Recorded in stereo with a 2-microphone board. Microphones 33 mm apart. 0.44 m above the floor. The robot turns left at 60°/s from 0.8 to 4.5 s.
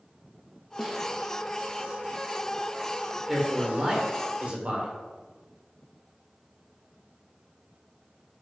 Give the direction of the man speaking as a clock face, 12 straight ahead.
12 o'clock.